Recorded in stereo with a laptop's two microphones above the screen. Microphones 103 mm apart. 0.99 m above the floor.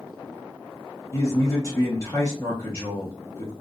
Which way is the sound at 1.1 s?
30° left (ahead or behind).